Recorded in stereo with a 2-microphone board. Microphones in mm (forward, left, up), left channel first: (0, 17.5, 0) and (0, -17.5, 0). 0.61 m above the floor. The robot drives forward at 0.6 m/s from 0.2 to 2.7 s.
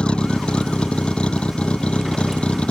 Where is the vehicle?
25° left (ahead or behind); by 2.7 s 30° left (ahead or behind).